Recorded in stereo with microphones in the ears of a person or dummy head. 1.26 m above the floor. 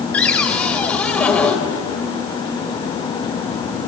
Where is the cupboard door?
10° left (ahead or behind), 3 m.